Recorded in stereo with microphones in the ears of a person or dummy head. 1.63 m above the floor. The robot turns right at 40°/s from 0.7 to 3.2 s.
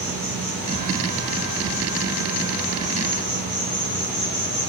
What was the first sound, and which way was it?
An insect, 35° left.